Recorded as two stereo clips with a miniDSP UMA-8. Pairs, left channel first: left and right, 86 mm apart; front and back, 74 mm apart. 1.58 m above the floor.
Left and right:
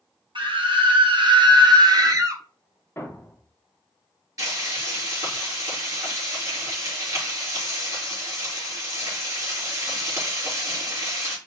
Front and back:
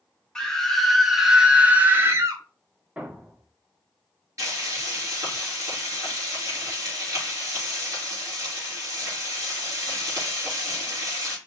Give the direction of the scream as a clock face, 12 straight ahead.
3 o'clock.